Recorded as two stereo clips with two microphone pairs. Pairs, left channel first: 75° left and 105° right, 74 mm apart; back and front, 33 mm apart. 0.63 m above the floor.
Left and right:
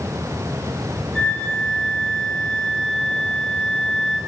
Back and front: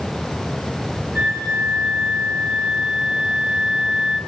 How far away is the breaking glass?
I don't hear breaking glass.